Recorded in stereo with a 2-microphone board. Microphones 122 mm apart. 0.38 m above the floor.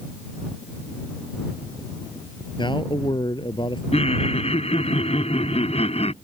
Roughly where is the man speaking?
Left.